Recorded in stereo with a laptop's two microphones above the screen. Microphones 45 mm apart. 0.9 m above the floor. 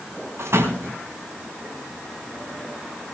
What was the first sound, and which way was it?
A door slam, 75° right (ahead or behind).